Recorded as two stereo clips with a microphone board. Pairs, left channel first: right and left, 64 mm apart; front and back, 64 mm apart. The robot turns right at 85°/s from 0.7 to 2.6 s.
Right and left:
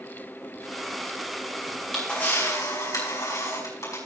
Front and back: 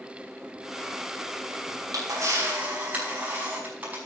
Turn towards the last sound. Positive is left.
turn(degrees=-115)